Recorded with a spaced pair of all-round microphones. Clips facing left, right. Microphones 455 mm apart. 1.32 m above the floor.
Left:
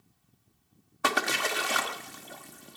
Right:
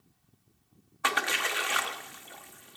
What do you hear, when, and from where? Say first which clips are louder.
1.0 s a splash: left 4 dB; 60° left (ahead or behind), 0.8 m